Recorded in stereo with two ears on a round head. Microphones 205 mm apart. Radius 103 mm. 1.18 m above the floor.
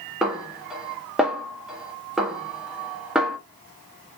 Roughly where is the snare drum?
Centre.